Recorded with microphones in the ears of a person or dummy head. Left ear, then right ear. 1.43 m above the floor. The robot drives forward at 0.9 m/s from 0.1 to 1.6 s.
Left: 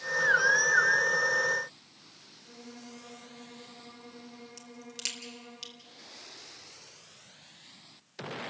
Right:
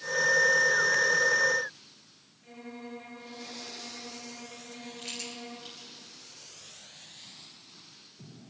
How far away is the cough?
I don't hear a cough.